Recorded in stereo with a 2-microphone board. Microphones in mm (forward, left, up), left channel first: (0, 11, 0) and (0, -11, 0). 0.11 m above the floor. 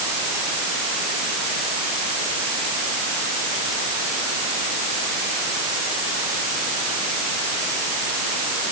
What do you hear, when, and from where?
Only background noise.